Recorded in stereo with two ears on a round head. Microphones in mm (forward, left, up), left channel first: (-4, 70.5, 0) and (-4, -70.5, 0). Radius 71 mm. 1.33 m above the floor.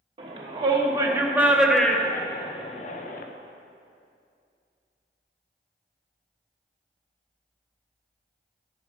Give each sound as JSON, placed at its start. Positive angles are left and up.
{"t": 0.2, "sound": "a shout", "side_deg": -35, "distance_m": 1.9}